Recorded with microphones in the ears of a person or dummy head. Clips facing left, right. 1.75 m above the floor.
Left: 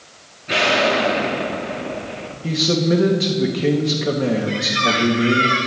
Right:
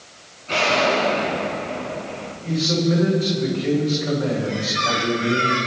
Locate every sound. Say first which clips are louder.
0.5 s an explosion: left 2 dB; 15° left (ahead or behind), 2 m
2.4 s a man speaking: left 2 dB; 60° left (ahead or behind), 3 m
4.5 s a squeak: left 3 dB; 35° left (ahead or behind), 2.5 m